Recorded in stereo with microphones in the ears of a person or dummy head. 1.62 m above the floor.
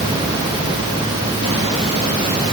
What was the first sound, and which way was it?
Only background noise.